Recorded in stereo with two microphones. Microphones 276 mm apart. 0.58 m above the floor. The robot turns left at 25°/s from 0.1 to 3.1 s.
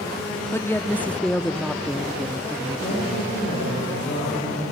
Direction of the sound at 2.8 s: 25° left (ahead or behind).